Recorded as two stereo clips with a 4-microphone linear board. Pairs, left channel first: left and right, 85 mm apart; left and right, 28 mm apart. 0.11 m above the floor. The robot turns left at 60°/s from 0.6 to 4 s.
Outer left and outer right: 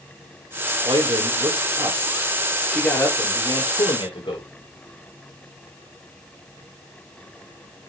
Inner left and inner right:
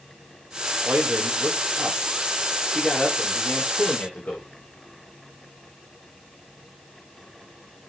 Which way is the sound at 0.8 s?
70° right.